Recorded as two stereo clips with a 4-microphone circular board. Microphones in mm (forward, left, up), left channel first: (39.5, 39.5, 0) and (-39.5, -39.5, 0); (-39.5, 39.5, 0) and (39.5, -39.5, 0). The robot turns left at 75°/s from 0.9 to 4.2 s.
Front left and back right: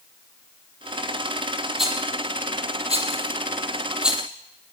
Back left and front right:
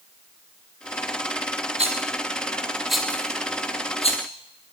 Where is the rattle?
45° right, 4 m; by 4.2 s 130° left, 4 m.